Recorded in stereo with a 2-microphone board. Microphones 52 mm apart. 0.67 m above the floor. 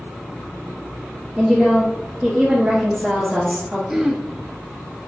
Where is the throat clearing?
5° right (ahead or behind), 0.5 m.